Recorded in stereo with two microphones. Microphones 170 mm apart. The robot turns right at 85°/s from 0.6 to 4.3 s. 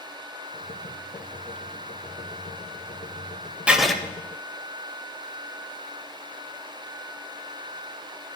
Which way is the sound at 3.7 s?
5° right (ahead or behind).